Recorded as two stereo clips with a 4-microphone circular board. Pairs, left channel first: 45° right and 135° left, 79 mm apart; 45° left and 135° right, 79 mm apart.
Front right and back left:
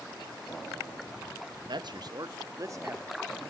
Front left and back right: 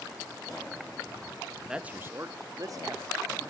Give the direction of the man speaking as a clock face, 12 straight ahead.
7 o'clock.